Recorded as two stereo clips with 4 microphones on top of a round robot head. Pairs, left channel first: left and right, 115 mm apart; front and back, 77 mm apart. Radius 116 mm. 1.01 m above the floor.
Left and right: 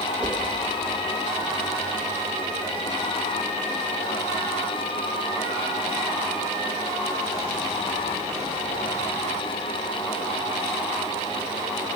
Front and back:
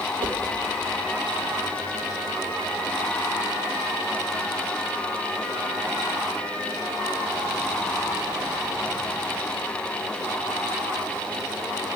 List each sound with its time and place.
0.2 s a whoosh: 170° right, 1.0 m